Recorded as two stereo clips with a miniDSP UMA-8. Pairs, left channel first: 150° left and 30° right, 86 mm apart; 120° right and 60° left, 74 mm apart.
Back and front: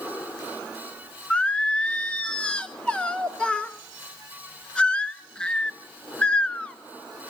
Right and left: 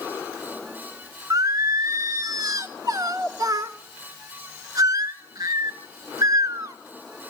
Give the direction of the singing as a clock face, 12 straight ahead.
10 o'clock.